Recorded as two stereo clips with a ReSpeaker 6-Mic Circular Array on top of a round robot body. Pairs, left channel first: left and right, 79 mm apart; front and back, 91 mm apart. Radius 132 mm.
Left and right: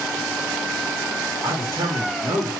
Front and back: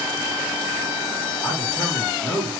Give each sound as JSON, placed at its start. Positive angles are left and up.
{"t": 1.4, "sound": "a man speaking", "azimuth_deg": -60, "distance_m": 1.8}